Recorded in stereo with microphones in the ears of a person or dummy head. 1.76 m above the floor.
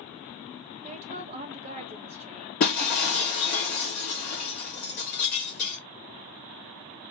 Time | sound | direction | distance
0.8 | a woman speaking | 30° right (ahead or behind) | 0.9 m
2.6 | breaking glass | 35° left (ahead or behind) | 1.1 m